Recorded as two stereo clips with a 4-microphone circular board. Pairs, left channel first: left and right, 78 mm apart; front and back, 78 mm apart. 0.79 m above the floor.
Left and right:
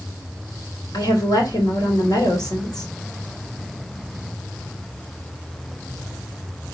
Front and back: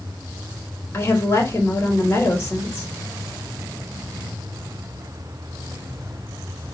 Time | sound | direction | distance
0.9 | a woman speaking | 60° left | 3.5 m